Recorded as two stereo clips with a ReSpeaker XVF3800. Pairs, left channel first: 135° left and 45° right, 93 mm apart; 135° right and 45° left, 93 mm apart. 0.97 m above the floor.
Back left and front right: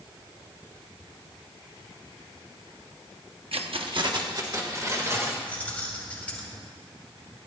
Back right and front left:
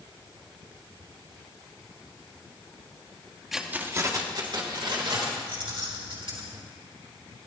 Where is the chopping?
No chopping in this recording.